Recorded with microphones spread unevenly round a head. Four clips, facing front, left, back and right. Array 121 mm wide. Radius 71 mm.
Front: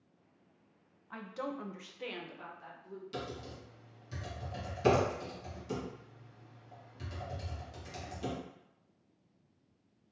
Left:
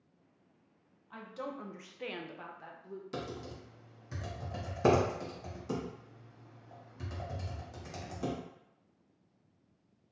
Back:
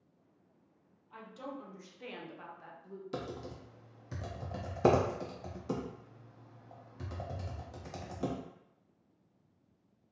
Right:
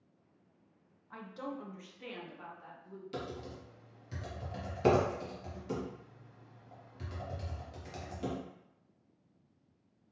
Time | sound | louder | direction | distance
1.1 | a woman speaking | even, front 5 dB | straight ahead | 0.7 m
3.1 | typing on a keyboard | even, back 2 dB | 165° left | 0.6 m